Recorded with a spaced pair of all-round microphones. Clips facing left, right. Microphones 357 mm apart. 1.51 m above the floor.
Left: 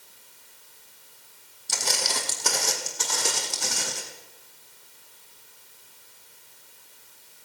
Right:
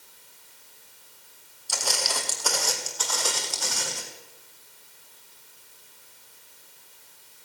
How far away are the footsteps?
About 3 m.